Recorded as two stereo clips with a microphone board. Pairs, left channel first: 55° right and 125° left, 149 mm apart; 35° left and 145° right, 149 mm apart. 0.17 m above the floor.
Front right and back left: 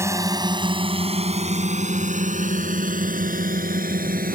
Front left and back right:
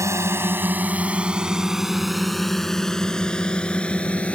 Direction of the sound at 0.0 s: 170° left.